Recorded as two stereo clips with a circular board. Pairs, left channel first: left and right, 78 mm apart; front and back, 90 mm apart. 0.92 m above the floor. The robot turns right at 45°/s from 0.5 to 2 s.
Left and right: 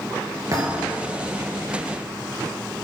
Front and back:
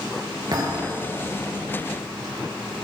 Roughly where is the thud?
Behind right.